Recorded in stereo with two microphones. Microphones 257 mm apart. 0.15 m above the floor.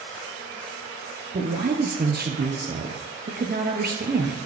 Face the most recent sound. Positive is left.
turn(degrees=-35)  # may be behind; listen again after turning